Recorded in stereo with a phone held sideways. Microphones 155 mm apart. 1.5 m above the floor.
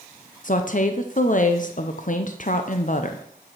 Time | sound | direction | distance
0.4 | a woman speaking | 55° left (ahead or behind) | 0.6 m